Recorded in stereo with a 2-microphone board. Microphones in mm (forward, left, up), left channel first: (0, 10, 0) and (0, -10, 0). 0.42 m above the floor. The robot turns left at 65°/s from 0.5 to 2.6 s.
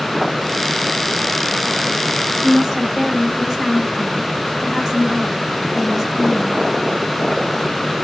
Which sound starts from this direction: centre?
A woman speaking, at 2.4 s.